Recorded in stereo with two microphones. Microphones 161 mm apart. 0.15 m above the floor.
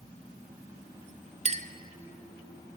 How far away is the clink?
About 1.0 m.